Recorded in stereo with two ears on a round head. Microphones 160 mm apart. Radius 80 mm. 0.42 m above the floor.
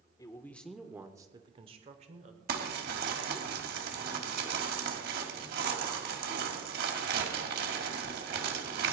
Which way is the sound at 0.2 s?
20° left (ahead or behind).